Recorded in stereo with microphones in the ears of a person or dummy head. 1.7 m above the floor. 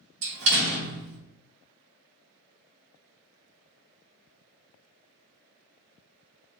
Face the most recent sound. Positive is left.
turn(degrees=-65)  # may be behind; listen again after turning